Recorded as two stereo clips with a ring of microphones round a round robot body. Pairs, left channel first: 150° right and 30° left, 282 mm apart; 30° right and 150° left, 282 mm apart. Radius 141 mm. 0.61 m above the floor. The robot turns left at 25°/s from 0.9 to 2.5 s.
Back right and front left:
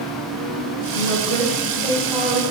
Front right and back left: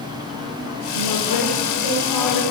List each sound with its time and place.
0.9 s a woman speaking: 25° right, 2.5 m; by 2.4 s 60° right, 2.5 m